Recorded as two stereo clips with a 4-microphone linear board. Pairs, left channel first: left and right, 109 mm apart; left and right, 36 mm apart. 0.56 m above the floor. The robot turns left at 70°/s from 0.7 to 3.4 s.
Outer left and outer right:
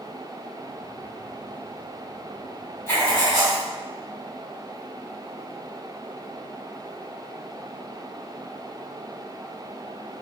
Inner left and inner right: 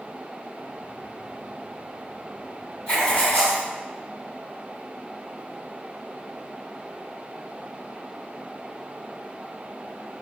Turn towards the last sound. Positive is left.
turn(degrees=115)